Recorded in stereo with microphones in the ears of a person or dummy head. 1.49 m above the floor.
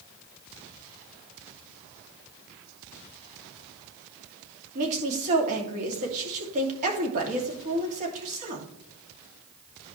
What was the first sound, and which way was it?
A woman speaking, 40° right (ahead or behind).